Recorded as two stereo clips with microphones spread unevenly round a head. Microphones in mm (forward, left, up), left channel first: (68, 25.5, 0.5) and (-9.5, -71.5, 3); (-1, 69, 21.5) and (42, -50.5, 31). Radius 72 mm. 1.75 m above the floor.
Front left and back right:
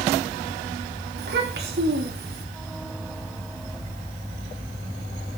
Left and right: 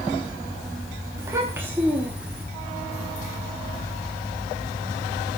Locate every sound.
1.2 s a child speaking: 140° right, 3.5 m; by 2.5 s 155° right, 4 m